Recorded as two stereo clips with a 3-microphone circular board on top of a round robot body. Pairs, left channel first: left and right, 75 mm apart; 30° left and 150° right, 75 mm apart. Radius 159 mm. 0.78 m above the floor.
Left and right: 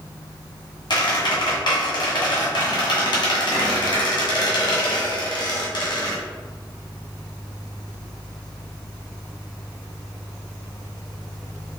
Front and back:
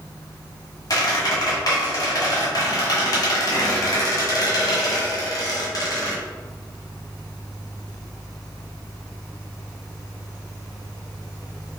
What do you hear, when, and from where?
0.9 s a squeak: 70° left, 1.4 m